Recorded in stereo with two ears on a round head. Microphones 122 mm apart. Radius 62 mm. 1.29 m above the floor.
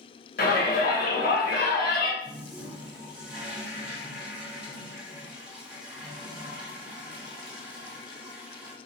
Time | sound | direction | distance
0.4 | a shout | 75° left (ahead or behind) | 1.7 m
2.2 | a toilet flushing | 10° right (ahead or behind) | 1.2 m